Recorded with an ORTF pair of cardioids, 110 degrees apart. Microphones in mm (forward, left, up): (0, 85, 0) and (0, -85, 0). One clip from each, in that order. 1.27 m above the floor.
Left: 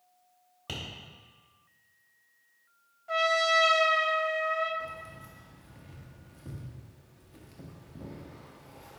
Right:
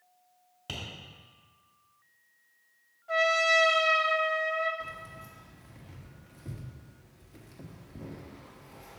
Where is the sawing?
No sawing in this recording.